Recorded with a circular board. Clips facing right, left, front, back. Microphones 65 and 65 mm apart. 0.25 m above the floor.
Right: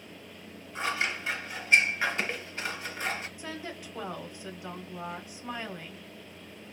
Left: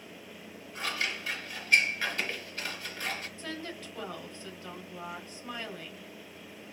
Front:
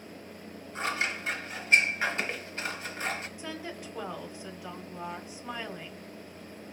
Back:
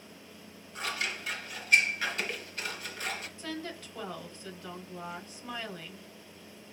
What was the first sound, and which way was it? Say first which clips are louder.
Scissors: right 3 dB, front 4 dB; 40° right.